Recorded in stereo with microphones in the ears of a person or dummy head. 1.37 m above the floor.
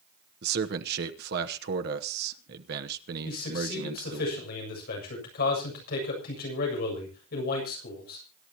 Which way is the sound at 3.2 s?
60° left (ahead or behind).